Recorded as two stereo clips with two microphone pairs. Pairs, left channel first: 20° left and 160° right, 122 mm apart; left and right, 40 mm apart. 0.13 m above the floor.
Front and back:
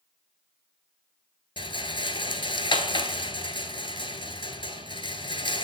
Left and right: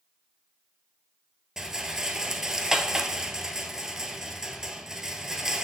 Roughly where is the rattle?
Ahead.